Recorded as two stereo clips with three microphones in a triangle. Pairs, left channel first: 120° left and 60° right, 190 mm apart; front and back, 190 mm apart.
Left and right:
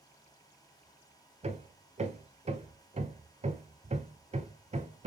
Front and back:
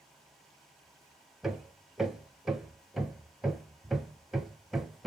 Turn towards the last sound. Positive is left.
turn(degrees=-90)